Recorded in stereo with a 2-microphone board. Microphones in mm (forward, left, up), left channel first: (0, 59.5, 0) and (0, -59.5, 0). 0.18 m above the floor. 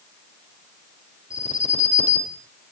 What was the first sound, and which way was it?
An alarm, 75° left (ahead or behind).